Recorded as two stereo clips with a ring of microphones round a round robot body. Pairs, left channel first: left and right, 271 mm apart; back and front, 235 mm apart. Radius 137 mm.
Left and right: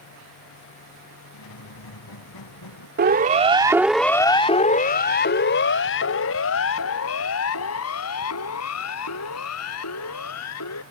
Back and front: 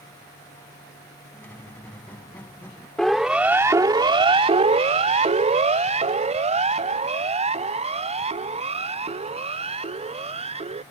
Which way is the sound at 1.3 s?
100° left.